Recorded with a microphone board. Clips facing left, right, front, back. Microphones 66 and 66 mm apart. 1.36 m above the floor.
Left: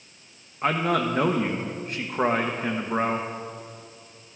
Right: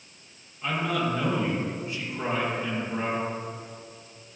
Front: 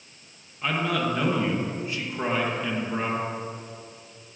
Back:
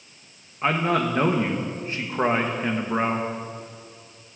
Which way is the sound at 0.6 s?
125° left.